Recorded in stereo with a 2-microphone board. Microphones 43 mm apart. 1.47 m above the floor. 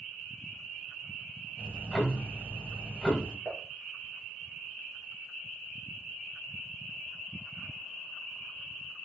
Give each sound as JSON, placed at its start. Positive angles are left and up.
{"t": 1.6, "sound": "ticking", "side_deg": 15, "distance_m": 1.8}
{"t": 3.5, "sound": "dishes clattering", "side_deg": -10, "distance_m": 2.0}